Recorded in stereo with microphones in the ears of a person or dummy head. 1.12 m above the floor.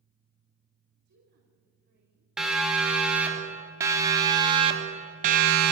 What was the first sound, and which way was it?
A woman speaking, 55° right (ahead or behind).